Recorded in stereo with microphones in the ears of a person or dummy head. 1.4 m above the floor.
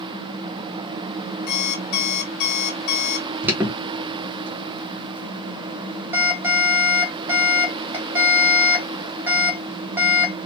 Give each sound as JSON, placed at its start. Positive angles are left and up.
{"t": 1.5, "sound": "an alarm clock", "side_deg": 50, "distance_m": 1.1}
{"t": 3.4, "sound": "an alarm", "side_deg": -10, "distance_m": 1.2}